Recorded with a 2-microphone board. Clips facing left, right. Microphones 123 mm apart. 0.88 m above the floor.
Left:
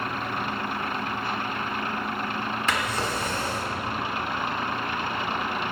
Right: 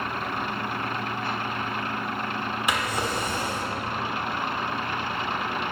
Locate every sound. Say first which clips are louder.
2.7 s a drawer: right 1 dB; 15° right (ahead or behind), 1.5 m